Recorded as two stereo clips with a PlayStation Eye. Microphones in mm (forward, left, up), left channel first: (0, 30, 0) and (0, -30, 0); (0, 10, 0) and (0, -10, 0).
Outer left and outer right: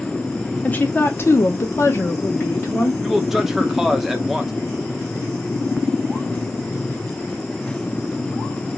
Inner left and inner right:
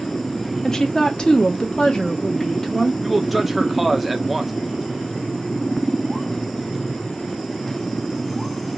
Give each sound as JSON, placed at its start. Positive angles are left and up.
{"t": 0.6, "sound": "a woman speaking", "side_deg": 25, "distance_m": 0.7}
{"t": 3.0, "sound": "a man speaking", "side_deg": -5, "distance_m": 0.8}